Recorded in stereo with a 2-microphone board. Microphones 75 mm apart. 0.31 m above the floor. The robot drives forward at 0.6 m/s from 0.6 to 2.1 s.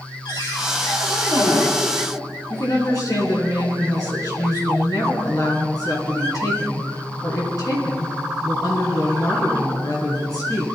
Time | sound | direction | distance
0.2 | a cupboard door | 75° left (ahead or behind) | 6 m
2.5 | a woman speaking | 55° left (ahead or behind) | 4 m